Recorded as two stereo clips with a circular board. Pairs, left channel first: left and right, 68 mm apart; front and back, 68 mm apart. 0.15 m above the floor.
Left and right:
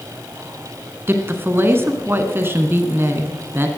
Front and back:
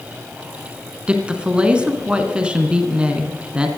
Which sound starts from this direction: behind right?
A woman speaking, at 1.1 s.